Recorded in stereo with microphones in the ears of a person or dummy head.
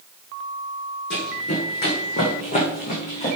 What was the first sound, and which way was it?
Running footsteps, 55° left (ahead or behind).